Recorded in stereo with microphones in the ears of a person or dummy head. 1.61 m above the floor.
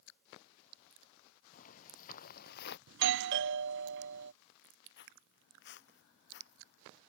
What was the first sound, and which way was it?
Footsteps, 45° left (ahead or behind).